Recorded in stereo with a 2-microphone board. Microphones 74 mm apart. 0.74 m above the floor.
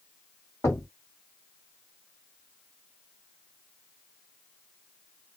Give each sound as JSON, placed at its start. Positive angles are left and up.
{"t": 0.6, "sound": "knocking", "side_deg": 45, "distance_m": 1.8}